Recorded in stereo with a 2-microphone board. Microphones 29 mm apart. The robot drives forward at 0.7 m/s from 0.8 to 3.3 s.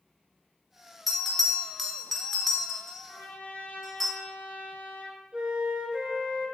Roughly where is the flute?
Right.